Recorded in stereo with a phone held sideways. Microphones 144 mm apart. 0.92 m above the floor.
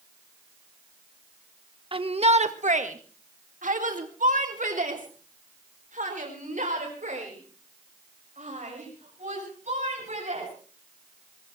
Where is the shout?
40° right (ahead or behind), 1.2 m; by 10.5 s 60° right (ahead or behind), 7 m.